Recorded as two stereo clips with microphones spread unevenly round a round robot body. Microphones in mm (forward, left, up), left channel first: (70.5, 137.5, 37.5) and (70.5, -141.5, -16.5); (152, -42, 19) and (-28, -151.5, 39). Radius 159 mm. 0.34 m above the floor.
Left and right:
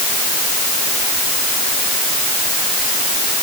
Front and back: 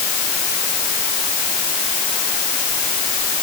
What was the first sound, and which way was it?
Only background noise.